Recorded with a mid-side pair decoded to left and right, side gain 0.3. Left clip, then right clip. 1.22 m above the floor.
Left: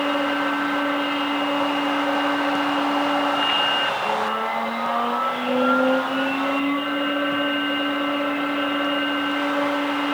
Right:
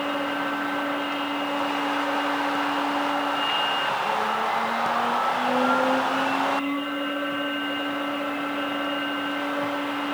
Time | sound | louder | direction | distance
0.0 | a machine running | left 4 dB | 50° left | 1.9 m